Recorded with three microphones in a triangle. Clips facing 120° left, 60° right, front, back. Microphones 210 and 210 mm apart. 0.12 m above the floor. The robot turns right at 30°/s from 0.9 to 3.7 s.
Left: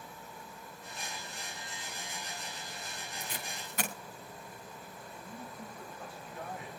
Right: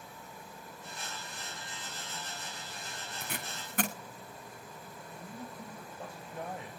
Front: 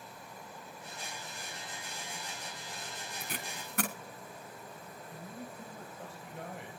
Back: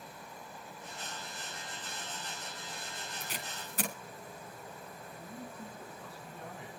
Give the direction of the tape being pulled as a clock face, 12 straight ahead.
1 o'clock.